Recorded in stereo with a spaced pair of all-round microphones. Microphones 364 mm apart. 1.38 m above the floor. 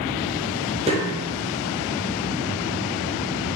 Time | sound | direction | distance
0.9 | a snare drum | 15° right (ahead or behind) | 0.9 m